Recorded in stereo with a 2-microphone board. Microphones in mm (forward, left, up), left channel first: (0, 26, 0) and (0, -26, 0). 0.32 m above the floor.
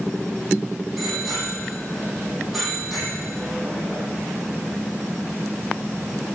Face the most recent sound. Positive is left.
turn(degrees=-5)  # may be behind; listen again after turning